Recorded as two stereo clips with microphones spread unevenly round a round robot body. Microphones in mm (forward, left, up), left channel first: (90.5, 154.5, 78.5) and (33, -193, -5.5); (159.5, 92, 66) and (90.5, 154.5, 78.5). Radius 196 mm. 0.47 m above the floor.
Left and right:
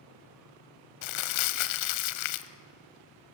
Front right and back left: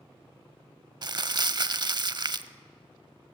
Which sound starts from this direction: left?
Crumpling, at 1.0 s.